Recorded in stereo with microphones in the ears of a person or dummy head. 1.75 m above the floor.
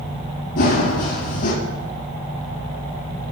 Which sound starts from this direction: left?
Running footsteps, at 0.6 s.